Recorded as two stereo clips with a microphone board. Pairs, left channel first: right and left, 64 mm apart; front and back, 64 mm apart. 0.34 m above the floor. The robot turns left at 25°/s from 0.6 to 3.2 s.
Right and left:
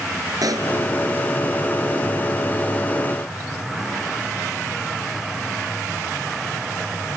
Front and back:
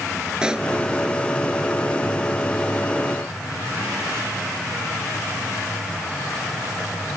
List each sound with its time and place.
0.4 s a pop: 105° left; by 0.7 s 100° left